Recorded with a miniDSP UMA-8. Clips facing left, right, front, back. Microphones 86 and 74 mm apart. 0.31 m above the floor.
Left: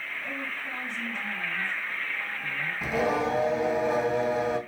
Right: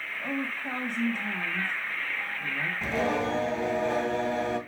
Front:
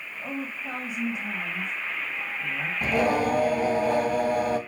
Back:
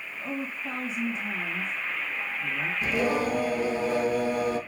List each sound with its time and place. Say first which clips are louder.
0.2 s a woman speaking: right 6 dB, even; 70° right, 2 m
2.8 s singing: left 2 dB, front 3 dB; 10° left, 2 m